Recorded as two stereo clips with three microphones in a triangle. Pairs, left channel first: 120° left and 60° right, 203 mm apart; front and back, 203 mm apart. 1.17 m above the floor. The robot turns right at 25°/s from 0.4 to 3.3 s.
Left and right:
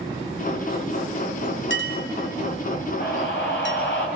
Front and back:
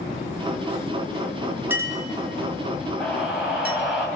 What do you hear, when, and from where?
1.7 s a clink: 100° left, 2 m; by 3.8 s 140° left, 2 m
3.0 s a scream: 85° left, 8 m; by 4.1 s 95° left, 8 m